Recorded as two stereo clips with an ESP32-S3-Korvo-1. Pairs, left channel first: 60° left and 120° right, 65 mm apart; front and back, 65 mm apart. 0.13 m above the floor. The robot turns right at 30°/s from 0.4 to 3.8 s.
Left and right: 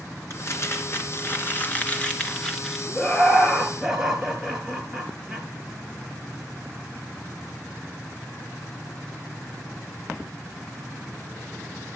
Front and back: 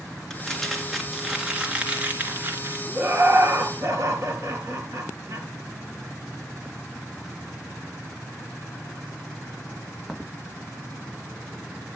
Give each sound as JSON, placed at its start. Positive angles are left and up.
{"t": 0.3, "sound": "crumpling", "azimuth_deg": 70, "distance_m": 2.0}
{"t": 3.0, "sound": "laughter", "azimuth_deg": 130, "distance_m": 3.0}